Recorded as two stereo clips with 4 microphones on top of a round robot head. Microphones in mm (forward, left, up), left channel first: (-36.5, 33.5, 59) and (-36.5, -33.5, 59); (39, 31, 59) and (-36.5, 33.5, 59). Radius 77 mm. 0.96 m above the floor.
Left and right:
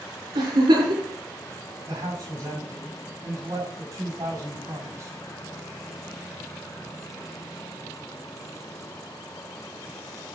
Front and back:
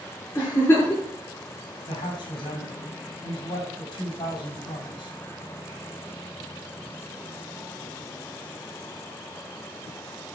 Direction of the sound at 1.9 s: 35° right.